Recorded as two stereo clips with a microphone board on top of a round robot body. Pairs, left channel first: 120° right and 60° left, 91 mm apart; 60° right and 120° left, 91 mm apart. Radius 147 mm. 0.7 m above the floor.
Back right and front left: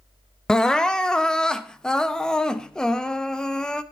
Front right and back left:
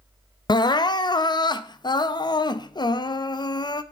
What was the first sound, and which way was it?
Crying, 40° right.